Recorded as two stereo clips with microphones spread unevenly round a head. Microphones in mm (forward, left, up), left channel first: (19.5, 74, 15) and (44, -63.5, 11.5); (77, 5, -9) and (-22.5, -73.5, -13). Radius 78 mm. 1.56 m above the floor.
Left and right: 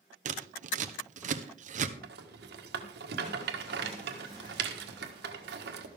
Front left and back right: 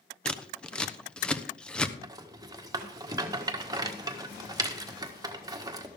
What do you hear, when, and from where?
0.2 s scissors: 45° right, 1.0 m
2.0 s a rattle: 80° right, 1.5 m